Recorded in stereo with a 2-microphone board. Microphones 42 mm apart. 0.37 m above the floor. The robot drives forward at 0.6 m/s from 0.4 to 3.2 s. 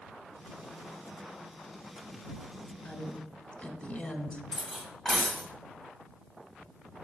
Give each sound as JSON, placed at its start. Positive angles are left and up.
{"t": 2.9, "sound": "a woman speaking", "side_deg": 25, "distance_m": 1.1}
{"t": 4.5, "sound": "cutlery clinking", "side_deg": 5, "distance_m": 1.5}